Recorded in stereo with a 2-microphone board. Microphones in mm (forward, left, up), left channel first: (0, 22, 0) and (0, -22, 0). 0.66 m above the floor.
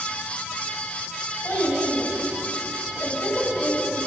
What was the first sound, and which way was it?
A child speaking, 35° left (ahead or behind).